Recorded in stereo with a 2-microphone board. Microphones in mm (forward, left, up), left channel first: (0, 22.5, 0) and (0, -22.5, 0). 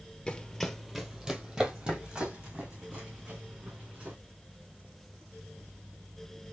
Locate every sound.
0.3 s running footsteps: 20° left (ahead or behind), 0.6 m; by 4.2 s 35° right (ahead or behind), 2.5 m